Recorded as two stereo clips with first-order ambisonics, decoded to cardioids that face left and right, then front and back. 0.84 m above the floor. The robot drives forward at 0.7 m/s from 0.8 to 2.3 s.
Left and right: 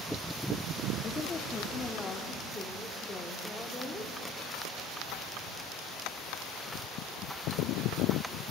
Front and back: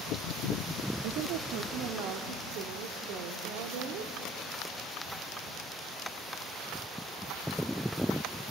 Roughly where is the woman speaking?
Behind left.